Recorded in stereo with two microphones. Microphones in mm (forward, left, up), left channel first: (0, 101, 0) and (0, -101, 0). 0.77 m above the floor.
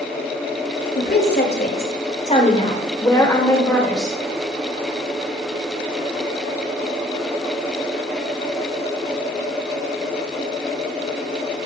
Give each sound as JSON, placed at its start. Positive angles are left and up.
{"t": 0.9, "sound": "a woman speaking", "side_deg": 70, "distance_m": 3.5}